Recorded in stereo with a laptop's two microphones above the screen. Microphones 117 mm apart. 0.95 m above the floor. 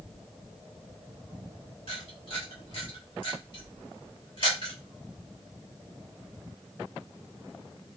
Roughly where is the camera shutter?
Left.